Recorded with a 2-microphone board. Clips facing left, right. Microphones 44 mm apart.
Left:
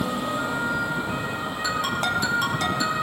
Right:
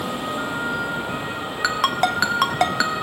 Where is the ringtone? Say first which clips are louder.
Right 6 dB; 85° right, 1.5 m.